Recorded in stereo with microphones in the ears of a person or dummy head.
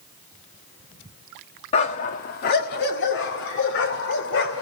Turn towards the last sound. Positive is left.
turn(degrees=65)  # may be behind; listen again after turning